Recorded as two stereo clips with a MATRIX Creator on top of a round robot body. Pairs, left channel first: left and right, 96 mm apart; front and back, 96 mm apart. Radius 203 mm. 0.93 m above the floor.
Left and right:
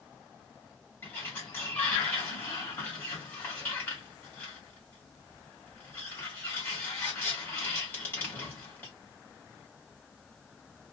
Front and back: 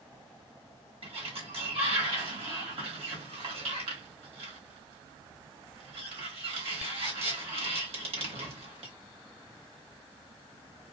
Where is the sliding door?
160° left, 1.1 m.